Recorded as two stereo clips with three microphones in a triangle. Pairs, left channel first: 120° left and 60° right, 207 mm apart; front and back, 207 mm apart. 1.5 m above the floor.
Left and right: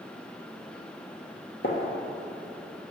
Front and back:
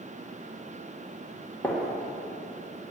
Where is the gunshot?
85° left, 1.7 m.